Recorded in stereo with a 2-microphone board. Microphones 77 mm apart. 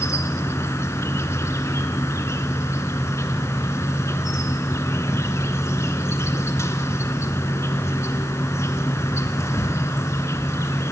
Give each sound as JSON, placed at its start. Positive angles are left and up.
{"t": 0.0, "sound": "an insect", "side_deg": 40, "distance_m": 0.9}